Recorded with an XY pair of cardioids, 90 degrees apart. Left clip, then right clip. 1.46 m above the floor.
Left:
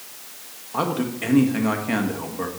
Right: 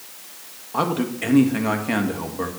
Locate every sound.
0.7 s a man speaking: 15° right, 1.7 m